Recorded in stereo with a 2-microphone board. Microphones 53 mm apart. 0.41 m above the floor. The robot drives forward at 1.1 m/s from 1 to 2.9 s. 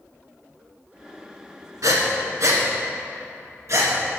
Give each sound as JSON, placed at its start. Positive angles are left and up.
{"t": 1.8, "sound": "breathing", "side_deg": -85, "distance_m": 2.0}